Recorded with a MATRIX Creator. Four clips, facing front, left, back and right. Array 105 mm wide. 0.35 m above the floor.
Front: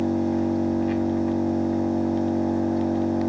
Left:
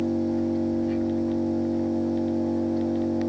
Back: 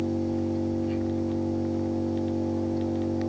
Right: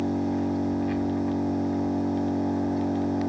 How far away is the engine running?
About 2 m.